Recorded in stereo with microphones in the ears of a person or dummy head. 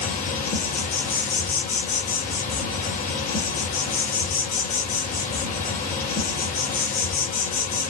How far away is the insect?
About 1.2 m.